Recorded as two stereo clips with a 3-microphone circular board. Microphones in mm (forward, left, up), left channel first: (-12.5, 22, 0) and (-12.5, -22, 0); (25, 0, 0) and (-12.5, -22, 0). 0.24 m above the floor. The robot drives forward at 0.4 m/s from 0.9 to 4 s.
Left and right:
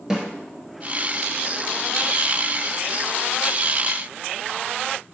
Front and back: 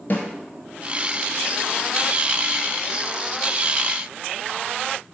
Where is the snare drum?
20° right, 1.2 m.